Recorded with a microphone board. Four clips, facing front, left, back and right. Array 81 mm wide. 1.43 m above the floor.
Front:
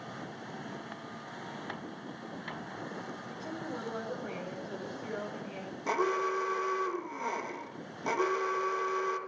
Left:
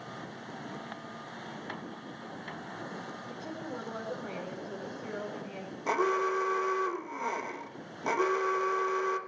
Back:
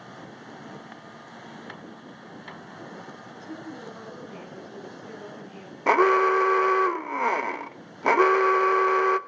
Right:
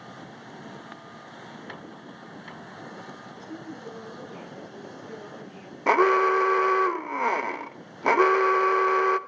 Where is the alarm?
140° right, 1.0 m.